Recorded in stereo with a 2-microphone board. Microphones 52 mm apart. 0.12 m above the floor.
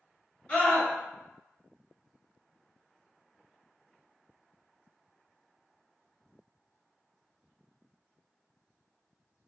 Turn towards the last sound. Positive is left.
turn(degrees=20)  # may be behind; listen again after turning